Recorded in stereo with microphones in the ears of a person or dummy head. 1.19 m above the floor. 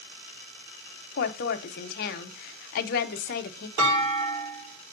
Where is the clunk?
60° right (ahead or behind), 3.5 m.